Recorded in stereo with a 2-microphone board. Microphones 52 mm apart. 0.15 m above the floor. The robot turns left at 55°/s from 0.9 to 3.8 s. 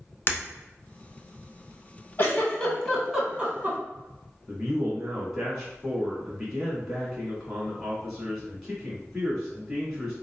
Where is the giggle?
50° left (ahead or behind), 1.4 m; by 3.8 s 35° right (ahead or behind), 1.4 m.